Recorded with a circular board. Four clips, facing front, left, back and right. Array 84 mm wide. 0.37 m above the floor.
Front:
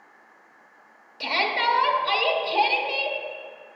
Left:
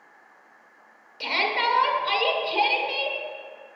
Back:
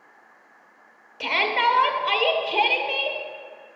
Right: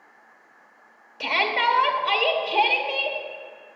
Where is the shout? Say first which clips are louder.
Right 2 dB, back 2 dB; 145° right, 0.9 m.